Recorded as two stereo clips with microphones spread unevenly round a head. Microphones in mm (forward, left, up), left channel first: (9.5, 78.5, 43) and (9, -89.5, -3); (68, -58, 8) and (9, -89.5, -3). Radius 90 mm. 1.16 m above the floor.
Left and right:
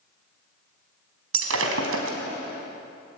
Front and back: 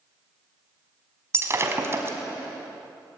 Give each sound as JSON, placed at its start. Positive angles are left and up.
{"t": 1.3, "sound": "breaking glass", "azimuth_deg": -100, "distance_m": 4.0}